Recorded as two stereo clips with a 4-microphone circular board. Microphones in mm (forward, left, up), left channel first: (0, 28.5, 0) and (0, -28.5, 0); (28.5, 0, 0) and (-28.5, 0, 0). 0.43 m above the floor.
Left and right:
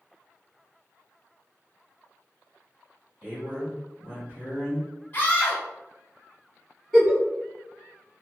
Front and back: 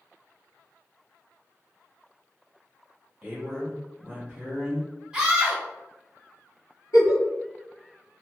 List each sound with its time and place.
3.2 s a man speaking: 105° right, 1.3 m
5.1 s a scream: 115° left, 0.9 m
6.9 s a giggle: 5° left, 1.1 m